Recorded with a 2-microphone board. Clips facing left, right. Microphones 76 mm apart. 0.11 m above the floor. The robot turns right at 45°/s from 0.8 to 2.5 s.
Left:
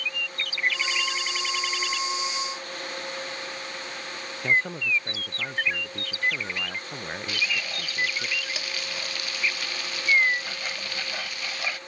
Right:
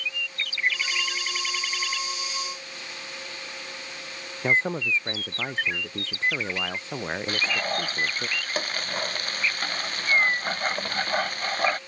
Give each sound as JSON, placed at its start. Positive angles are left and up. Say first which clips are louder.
{"t": 4.4, "sound": "a man speaking", "louder": "right 1 dB", "side_deg": -25}
{"t": 7.3, "sound": "frying", "louder": "right 3 dB", "side_deg": -45}